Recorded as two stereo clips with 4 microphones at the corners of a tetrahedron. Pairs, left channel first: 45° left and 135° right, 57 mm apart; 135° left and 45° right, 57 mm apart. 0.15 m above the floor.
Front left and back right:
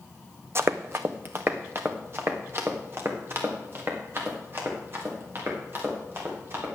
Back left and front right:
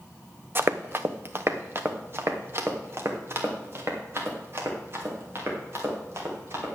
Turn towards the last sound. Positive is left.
turn(degrees=-90)